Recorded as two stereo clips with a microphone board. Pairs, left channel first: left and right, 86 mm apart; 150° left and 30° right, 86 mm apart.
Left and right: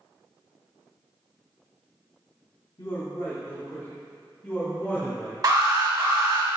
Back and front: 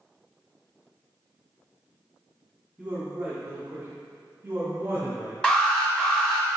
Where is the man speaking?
45° left, 1.0 m; by 5.3 s 25° left, 2.5 m.